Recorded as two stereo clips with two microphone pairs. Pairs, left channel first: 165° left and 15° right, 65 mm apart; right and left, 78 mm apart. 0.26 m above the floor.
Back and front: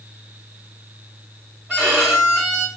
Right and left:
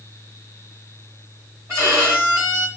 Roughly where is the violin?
Ahead left.